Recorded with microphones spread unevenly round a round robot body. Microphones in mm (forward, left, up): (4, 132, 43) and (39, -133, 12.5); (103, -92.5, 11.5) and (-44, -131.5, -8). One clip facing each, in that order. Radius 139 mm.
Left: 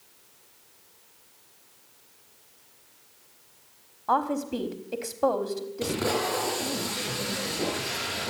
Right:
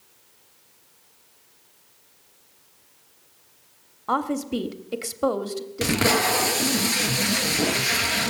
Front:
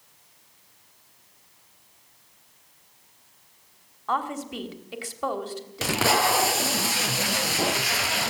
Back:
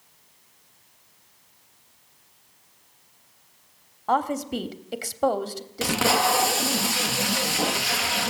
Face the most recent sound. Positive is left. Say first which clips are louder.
# right 6 dB, back 1 dB
turn(degrees=-75)